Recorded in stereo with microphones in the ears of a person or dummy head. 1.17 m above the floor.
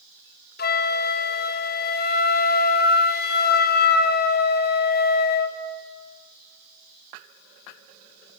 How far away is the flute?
About 0.6 m.